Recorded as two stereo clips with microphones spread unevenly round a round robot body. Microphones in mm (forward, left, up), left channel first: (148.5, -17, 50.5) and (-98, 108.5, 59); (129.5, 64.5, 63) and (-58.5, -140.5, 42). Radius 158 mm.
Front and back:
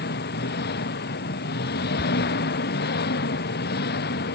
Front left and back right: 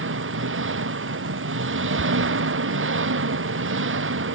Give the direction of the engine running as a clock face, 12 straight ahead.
3 o'clock.